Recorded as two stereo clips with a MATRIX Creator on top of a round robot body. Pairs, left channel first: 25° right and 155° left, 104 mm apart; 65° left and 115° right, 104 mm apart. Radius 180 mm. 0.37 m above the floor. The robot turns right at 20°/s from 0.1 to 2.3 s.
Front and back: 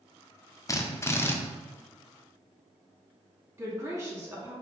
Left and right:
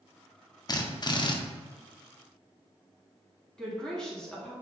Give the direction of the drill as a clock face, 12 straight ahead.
11 o'clock.